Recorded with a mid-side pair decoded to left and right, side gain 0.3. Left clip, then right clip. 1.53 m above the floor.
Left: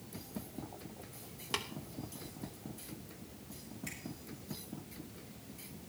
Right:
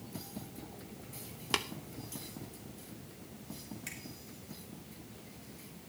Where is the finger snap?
55° right, 5 m.